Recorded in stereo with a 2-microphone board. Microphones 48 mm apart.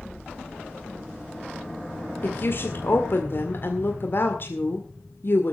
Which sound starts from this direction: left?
A woman speaking, at 2.2 s.